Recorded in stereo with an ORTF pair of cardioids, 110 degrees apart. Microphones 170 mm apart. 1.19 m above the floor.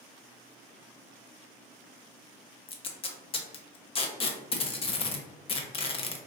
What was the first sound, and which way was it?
Tape being pulled, 35° left.